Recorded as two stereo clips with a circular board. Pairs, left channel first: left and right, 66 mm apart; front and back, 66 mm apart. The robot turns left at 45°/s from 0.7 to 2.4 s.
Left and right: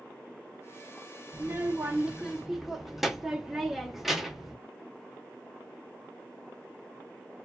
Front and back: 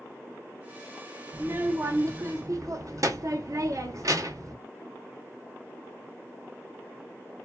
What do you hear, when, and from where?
1.3 s a child speaking: 130° right, 0.6 m; by 4.5 s 175° right, 0.6 m